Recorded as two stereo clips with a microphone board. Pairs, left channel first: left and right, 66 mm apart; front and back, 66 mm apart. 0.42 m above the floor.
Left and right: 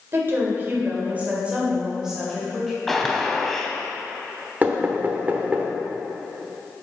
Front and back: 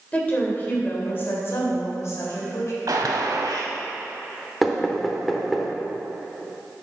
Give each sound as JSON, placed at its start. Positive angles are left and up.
{"t": 0.1, "sound": "a woman speaking", "azimuth_deg": -60, "distance_m": 1.7}
{"t": 2.9, "sound": "a gunshot", "azimuth_deg": 175, "distance_m": 0.7}
{"t": 4.6, "sound": "knocking", "azimuth_deg": -95, "distance_m": 0.8}